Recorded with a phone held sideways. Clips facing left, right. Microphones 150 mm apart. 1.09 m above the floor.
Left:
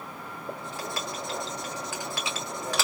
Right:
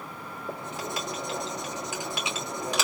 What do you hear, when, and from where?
0.5 s writing: 20° right (ahead or behind), 1.6 m